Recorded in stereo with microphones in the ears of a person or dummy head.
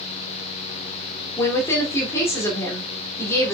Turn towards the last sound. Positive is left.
turn(degrees=15)  # may be behind; listen again after turning